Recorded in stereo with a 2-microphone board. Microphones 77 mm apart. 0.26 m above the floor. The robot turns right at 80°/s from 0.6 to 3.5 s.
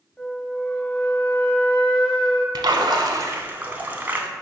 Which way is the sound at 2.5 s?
100° right.